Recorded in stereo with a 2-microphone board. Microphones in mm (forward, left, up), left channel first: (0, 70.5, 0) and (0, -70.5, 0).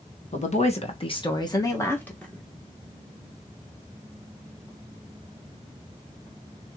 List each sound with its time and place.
0.3 s a woman speaking: 55° left (ahead or behind), 1.2 m; by 2.4 s 5° left (ahead or behind), 1.3 m